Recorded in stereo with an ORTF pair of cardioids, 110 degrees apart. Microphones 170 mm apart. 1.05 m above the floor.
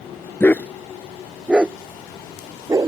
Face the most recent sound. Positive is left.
turn(degrees=-20)